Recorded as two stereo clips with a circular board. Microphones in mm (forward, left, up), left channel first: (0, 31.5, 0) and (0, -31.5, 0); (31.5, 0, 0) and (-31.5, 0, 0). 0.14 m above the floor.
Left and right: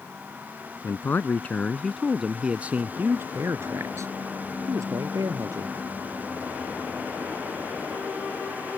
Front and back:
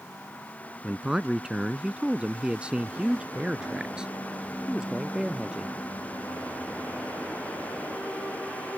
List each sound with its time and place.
0.8 s a man speaking: 105° left; by 5.8 s 105° right